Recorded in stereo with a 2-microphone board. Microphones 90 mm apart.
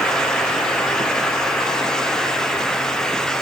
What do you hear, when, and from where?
Only background noise.